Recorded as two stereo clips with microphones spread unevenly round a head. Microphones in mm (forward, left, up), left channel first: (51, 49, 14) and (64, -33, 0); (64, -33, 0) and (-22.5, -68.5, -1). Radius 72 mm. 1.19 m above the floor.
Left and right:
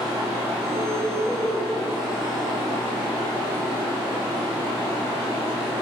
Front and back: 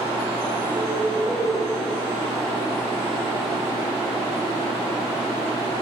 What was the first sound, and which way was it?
A bird, 50° right.